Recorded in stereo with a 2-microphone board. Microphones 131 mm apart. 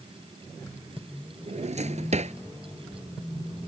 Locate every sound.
1.5 s a drawer: 60° right (ahead or behind)